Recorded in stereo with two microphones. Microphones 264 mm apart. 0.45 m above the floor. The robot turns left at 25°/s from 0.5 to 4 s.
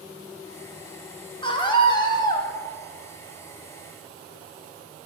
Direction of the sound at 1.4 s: 20° left (ahead or behind).